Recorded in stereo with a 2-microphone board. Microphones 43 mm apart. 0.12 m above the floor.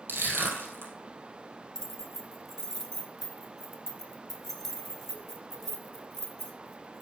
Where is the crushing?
65° right (ahead or behind), 3.5 m.